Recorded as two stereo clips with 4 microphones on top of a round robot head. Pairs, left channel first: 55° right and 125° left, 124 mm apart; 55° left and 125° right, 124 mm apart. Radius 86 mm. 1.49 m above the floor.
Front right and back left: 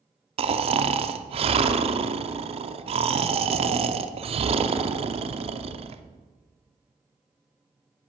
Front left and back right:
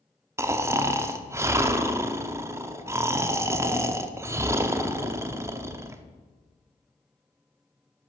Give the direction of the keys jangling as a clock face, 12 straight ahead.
No keys jangling in this recording.